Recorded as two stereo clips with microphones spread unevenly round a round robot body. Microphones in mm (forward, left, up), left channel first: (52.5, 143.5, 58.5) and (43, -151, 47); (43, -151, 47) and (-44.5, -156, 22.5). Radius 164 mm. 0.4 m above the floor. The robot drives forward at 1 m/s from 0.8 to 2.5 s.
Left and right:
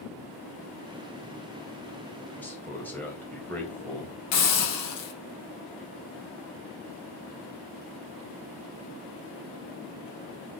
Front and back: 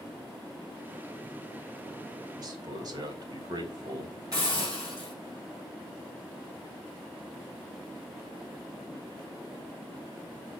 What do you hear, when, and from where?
2.4 s a man speaking: 170° left, 2.5 m; by 4.2 s 175° left, 3 m
4.3 s a hiss: 110° left, 4.5 m